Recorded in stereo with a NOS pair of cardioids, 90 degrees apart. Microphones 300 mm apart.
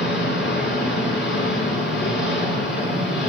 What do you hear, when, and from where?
0.0 s an engine running: 40° left, 4 m